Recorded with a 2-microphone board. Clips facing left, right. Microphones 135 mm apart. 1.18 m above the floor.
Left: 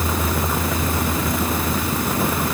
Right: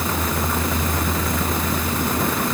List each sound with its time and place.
Only background noise.